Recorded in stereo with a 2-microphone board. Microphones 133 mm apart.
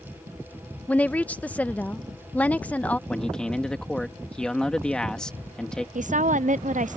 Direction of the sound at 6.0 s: 70° right (ahead or behind).